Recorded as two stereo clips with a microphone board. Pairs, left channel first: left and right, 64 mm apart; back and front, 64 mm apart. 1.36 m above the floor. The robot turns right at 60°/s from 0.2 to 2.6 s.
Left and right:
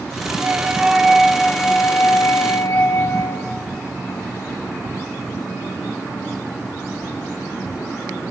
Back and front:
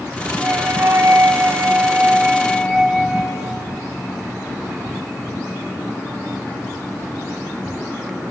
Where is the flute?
40° right, 1.3 m; by 3.5 s 90° left, 1.3 m.